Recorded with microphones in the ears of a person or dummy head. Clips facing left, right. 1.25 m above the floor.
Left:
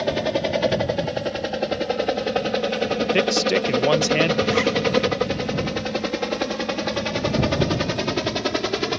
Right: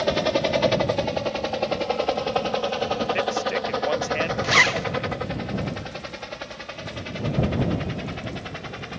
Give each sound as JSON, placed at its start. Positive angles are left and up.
{"t": 0.0, "sound": "a helicopter", "side_deg": 0}
{"t": 3.1, "sound": "a man speaking", "side_deg": 50}
{"t": 4.4, "sound": "a zipper", "side_deg": -70}